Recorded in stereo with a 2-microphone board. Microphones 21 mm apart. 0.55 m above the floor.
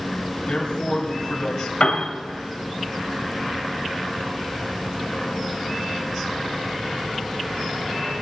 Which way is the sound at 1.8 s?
50° left (ahead or behind).